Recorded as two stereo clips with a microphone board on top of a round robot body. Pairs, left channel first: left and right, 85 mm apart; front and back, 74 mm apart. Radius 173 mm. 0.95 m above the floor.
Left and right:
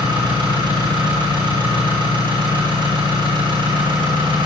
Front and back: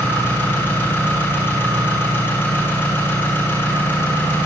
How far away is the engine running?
About 9.5 m.